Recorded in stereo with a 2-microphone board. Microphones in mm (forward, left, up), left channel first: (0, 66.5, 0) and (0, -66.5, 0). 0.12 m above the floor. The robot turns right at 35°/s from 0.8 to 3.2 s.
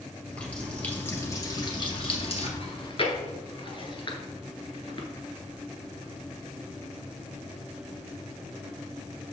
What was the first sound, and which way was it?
A running tap, 10° left.